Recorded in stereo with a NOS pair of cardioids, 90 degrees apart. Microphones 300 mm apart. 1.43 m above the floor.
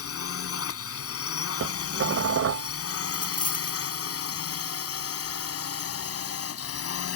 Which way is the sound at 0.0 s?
50° left.